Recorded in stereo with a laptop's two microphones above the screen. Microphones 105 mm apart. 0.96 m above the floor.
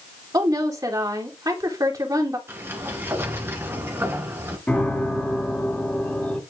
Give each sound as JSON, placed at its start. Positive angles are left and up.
{"t": 0.3, "sound": "a woman speaking", "side_deg": -35, "distance_m": 2.5}
{"t": 2.5, "sound": "a sliding door", "side_deg": -20, "distance_m": 2.5}
{"t": 4.7, "sound": "a piano", "side_deg": 15, "distance_m": 2.5}